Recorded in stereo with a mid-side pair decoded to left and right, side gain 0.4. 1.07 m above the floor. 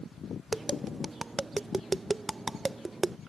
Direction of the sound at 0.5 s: 20° right.